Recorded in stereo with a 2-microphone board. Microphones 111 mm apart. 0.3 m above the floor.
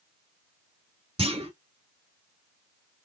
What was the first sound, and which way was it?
A clunk, 55° right (ahead or behind).